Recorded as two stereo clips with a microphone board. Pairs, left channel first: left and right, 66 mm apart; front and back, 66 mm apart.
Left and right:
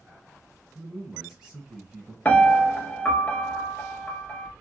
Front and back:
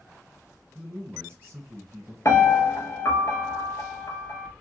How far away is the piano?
About 0.5 m.